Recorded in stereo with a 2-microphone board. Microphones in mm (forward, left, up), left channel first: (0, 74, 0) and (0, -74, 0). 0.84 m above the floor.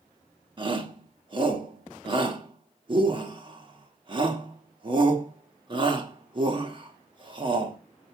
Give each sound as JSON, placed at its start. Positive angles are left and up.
{"t": 0.6, "sound": "a shout", "side_deg": -35, "distance_m": 1.4}